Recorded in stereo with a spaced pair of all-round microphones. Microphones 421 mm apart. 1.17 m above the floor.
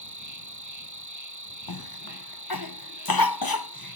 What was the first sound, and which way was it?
An insect, 45° right (ahead or behind).